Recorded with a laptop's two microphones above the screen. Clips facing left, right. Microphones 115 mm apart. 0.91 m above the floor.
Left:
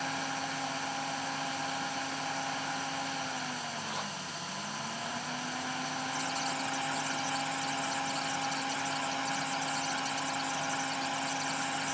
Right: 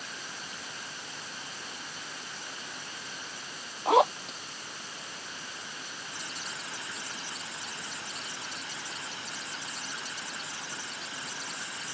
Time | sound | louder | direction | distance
0.0 | a fan | left 9 dB | 75° left (ahead or behind) | ?
3.9 | a zipper | right 16 dB | 80° right | ?